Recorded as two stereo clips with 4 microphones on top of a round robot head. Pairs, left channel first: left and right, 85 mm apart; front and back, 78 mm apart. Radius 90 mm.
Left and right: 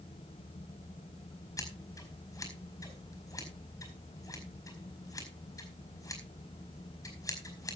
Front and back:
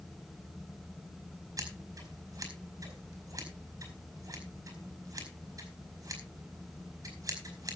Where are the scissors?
135° left, 5.5 m.